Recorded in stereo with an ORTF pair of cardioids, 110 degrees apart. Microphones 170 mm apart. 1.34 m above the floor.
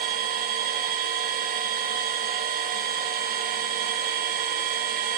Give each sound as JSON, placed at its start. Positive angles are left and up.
{"t": 0.0, "sound": "a machine running", "azimuth_deg": -60, "distance_m": 1.5}